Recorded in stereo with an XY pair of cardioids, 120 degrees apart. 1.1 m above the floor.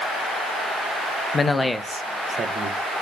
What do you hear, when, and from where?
1.3 s a man speaking: 30° left, 0.7 m; by 3.0 s 60° right, 1.1 m